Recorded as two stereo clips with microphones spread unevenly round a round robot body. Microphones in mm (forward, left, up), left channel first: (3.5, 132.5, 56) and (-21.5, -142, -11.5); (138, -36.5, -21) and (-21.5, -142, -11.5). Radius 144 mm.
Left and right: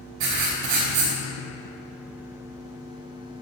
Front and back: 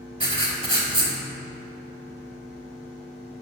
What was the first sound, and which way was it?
Writing, 85° right.